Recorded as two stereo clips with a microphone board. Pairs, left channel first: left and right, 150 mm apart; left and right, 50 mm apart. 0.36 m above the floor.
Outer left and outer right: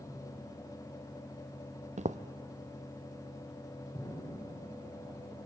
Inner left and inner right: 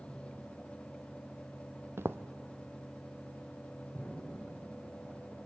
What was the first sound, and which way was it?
Footsteps, 55° right (ahead or behind).